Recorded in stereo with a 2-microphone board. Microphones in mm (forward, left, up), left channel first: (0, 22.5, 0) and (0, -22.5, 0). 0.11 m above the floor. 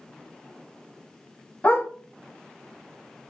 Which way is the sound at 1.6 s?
35° left (ahead or behind).